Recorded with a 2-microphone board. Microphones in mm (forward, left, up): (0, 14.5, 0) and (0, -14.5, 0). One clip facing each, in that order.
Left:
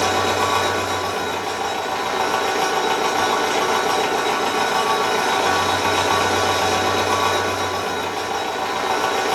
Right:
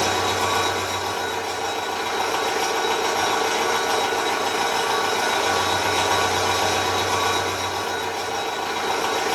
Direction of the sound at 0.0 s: 65° left (ahead or behind).